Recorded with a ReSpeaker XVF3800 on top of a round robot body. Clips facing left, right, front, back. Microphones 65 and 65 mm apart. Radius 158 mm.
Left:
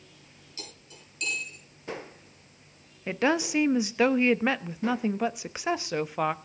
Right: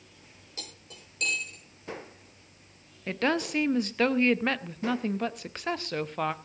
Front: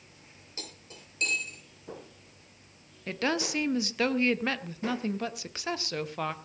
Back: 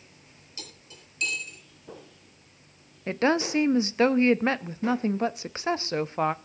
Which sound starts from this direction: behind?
A woman speaking, at 3.1 s.